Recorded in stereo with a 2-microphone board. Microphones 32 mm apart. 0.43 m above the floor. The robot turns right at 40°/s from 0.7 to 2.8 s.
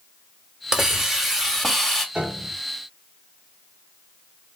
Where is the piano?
35° right (ahead or behind), 1.3 m; by 2.5 s 30° right (ahead or behind), 1.3 m.